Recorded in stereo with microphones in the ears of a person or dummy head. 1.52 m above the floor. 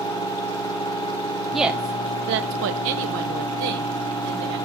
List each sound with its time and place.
1.5 s a woman speaking: centre (ahead or behind), 0.8 m; by 4.6 s 65° right (ahead or behind), 2.5 m